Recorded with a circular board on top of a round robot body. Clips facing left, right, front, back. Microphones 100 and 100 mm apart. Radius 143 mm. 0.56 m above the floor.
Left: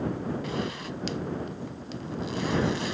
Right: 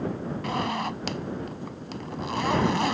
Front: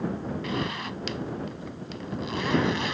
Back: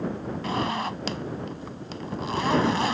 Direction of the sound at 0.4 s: 125° right.